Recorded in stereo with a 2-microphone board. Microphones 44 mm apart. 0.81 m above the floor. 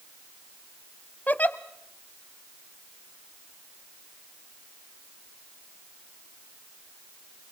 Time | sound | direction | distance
1.3 | a giggle | 40° left (ahead or behind) | 0.8 m